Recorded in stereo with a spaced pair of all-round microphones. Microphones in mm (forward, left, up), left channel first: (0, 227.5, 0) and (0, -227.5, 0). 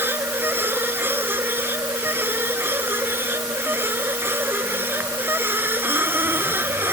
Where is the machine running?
5° right (ahead or behind).